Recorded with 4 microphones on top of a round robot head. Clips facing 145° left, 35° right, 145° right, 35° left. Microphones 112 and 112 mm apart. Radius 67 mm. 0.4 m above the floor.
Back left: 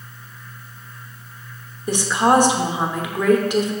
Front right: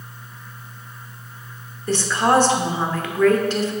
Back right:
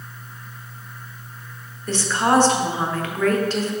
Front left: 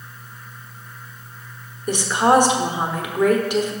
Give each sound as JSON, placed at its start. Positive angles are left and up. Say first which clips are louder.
{"t": 1.9, "sound": "a woman speaking", "louder": "back left 1 dB, front left 3 dB", "azimuth_deg": 90, "distance_m": 0.8}